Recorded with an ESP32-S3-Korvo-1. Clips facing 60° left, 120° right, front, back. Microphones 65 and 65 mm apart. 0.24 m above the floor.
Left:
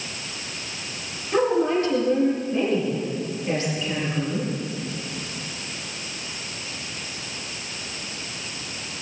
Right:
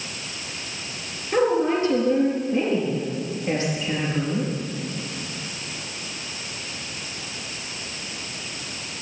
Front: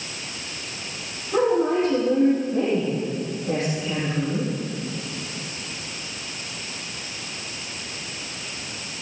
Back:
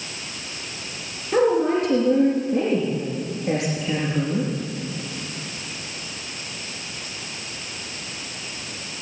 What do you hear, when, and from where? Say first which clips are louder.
1.3 s a woman speaking: even, back 1 dB; 175° left, 4.5 m